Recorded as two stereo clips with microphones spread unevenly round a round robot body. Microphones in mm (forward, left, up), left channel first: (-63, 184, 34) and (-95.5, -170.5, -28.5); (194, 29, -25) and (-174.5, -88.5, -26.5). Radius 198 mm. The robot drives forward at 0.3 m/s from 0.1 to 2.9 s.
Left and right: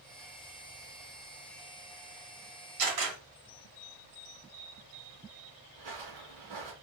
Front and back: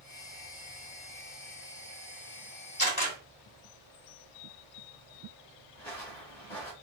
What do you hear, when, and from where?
2.8 s a camera shutter: 55° right, 2.5 m
5.8 s footsteps: 65° right, 1.9 m